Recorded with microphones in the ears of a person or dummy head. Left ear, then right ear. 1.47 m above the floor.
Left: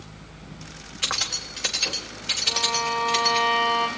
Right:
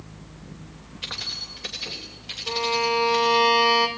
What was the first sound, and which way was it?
Keys jangling, 40° left (ahead or behind).